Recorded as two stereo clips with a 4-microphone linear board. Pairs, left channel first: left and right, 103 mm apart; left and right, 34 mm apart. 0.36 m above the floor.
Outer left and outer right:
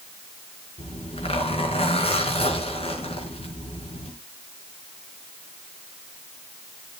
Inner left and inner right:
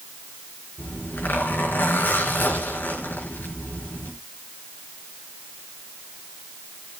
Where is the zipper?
75° left (ahead or behind), 4.5 m.